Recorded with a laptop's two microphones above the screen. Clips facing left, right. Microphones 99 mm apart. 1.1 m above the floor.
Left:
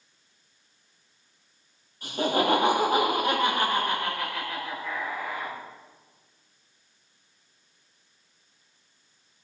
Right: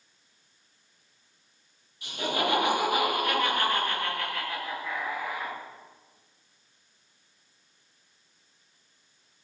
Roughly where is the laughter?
Left.